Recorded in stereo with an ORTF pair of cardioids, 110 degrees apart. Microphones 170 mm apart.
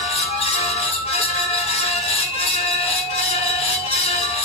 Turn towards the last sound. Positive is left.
turn(degrees=40)